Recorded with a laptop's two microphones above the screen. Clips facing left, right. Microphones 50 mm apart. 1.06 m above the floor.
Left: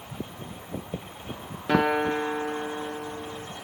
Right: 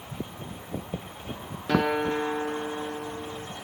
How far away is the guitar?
About 1.6 m.